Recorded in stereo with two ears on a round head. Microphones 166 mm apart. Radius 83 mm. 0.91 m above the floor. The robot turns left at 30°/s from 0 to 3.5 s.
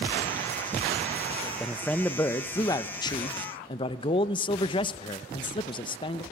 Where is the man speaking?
175° left, 0.6 m; by 6.2 s 115° left, 0.6 m.